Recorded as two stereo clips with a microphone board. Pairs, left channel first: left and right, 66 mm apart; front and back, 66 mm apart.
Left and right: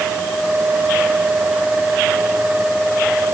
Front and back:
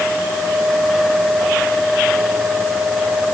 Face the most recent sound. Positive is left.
No sound to turn to.